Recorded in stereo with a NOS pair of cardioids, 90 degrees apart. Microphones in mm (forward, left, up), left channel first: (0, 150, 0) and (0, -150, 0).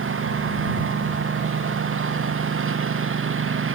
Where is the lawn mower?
45° right.